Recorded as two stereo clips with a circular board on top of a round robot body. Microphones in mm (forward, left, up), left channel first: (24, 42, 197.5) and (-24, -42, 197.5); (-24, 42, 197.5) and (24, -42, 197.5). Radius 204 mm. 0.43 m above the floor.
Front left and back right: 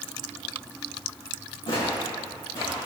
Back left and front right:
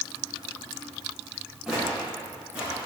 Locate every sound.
1.7 s footsteps: 25° left, 3.5 m; by 2.8 s 15° left, 4.5 m